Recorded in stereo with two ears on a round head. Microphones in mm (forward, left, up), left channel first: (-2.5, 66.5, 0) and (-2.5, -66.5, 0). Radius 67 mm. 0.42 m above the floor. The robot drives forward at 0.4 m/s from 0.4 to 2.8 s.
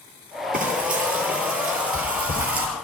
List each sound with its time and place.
0.5 s frying: 55° right (ahead or behind), 9.5 m; by 2.7 s 60° right (ahead or behind), 9 m